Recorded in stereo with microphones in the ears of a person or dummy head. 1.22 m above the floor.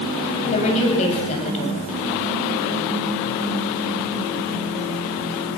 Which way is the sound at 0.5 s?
40° left (ahead or behind).